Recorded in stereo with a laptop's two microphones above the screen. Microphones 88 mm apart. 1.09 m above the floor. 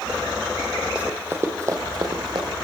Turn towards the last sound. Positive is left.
turn(degrees=-55)  # may be behind; listen again after turning